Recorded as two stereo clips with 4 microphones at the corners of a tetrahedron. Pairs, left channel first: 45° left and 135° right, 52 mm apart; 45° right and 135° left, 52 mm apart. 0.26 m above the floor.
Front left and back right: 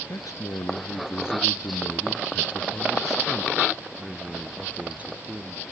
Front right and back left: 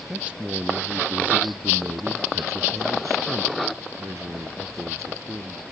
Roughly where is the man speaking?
Ahead left.